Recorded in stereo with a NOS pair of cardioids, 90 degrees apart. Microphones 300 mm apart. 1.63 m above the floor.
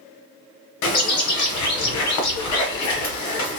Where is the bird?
70° left, 1.1 m.